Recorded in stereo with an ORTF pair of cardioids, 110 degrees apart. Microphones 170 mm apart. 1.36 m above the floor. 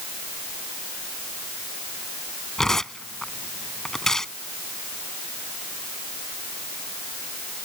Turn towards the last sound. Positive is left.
turn(degrees=5)